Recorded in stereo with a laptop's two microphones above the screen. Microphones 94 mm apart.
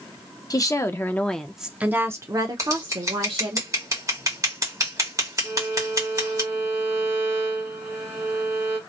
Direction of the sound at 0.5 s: 40° left (ahead or behind).